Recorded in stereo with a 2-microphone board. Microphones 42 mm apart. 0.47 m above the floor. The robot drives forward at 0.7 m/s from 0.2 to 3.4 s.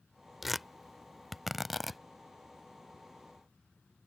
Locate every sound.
0.4 s tearing paper: centre (ahead or behind)